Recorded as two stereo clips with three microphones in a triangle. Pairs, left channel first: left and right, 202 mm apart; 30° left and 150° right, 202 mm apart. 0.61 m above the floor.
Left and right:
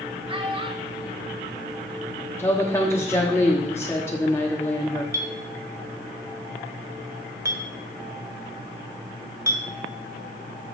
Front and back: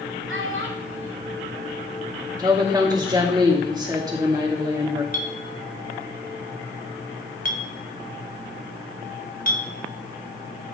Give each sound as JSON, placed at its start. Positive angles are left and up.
{"t": 0.3, "sound": "a child speaking", "azimuth_deg": -155, "distance_m": 1.7}
{"t": 2.4, "sound": "a woman speaking", "azimuth_deg": 155, "distance_m": 1.3}
{"t": 5.1, "sound": "a clink", "azimuth_deg": -15, "distance_m": 1.5}